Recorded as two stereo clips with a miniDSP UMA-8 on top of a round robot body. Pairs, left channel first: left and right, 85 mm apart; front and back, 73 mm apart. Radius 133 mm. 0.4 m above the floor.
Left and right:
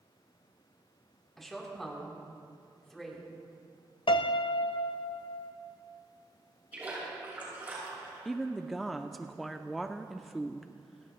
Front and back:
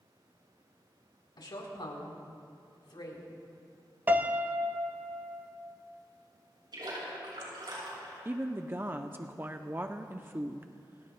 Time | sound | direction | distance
1.4 | a woman speaking | straight ahead | 4 m
4.1 | a piano | 110° left | 0.6 m
6.7 | a splash | 160° right | 7 m
8.2 | a woman speaking | straight behind | 0.8 m